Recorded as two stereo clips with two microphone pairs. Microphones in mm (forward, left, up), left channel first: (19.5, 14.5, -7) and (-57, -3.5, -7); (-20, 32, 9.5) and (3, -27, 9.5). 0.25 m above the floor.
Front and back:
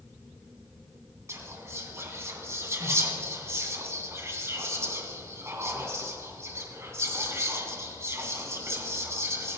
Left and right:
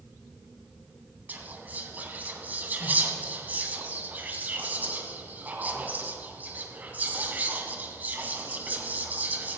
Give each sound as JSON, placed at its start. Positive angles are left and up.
{"t": 1.3, "sound": "whispering", "azimuth_deg": -120, "distance_m": 2.0}